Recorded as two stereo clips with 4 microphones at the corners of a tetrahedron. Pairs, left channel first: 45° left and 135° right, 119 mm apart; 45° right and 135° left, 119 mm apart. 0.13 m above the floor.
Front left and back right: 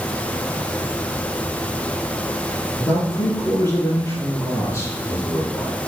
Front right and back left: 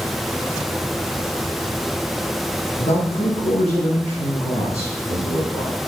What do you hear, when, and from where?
2.8 s a man speaking: 25° right, 3.5 m; by 5.8 s 15° right, 6 m